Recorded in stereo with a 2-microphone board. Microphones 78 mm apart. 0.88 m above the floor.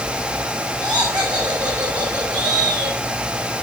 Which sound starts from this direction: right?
Laughter, at 0.8 s.